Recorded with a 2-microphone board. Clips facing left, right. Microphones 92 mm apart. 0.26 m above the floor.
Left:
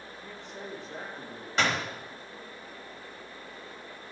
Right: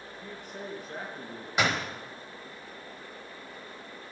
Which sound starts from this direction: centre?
A door slam, at 1.6 s.